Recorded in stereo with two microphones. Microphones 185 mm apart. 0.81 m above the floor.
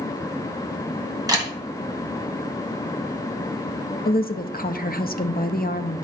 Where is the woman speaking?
55° left (ahead or behind), 0.7 m.